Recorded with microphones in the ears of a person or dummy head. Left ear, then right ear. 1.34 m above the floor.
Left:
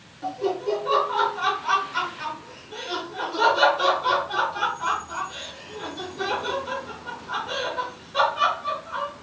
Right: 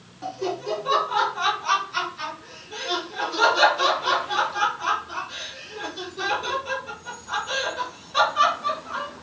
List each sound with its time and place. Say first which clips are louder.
0.2 s laughter: left 2 dB; 25° right (ahead or behind), 1.2 m